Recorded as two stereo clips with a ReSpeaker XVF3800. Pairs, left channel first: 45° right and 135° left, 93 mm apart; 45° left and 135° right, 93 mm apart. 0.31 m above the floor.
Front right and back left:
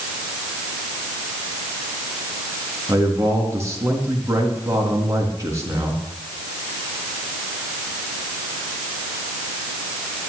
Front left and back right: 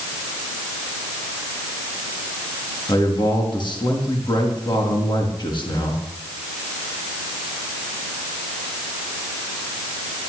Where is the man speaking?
75° left, 4.5 m.